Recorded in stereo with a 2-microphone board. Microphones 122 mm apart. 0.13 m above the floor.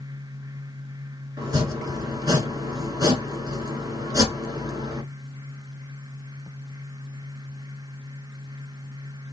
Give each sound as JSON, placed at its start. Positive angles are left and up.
{"t": 1.4, "sound": "chopping", "side_deg": -30, "distance_m": 1.5}